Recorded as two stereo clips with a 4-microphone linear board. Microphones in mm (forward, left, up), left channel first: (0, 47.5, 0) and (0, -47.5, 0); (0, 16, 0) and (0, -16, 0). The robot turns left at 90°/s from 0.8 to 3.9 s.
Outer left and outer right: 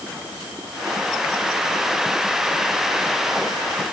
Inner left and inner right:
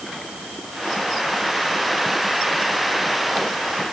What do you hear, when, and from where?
Only background noise.